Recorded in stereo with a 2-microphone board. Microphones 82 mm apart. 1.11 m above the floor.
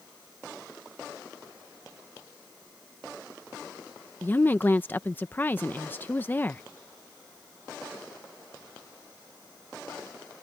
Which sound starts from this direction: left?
A woman speaking, at 4.2 s.